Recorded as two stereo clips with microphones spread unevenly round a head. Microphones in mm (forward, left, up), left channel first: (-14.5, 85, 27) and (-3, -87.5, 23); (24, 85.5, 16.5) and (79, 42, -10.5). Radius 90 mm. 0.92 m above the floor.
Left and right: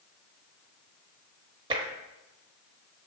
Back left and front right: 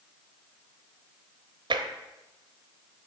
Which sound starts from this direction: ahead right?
Tapping, at 1.7 s.